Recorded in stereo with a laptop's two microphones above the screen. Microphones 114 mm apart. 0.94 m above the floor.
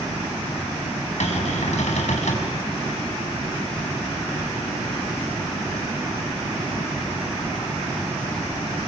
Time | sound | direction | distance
1.2 | a cupboard door | 80° left | 6 m